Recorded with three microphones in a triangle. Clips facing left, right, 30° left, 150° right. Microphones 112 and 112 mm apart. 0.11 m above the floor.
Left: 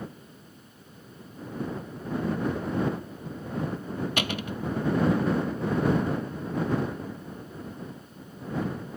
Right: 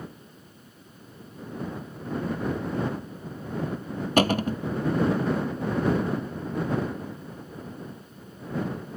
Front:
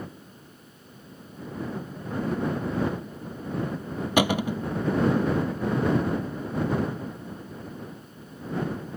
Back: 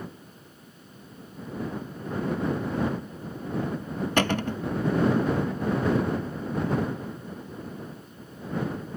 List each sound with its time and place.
4.2 s a cupboard door: 50° right